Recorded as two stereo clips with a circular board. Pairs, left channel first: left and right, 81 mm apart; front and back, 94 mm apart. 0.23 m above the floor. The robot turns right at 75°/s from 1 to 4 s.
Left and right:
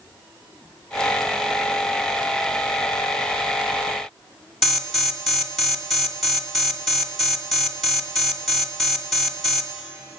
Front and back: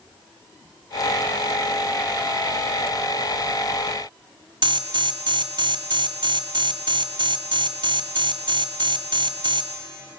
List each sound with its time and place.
4.6 s an alarm: straight behind, 1.6 m